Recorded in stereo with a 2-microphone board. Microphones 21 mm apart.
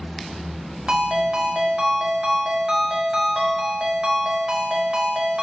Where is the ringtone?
50° right (ahead or behind), 0.9 m.